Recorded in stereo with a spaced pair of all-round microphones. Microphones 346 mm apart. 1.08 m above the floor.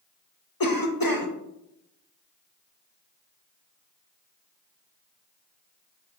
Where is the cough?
70° left (ahead or behind), 1.5 m.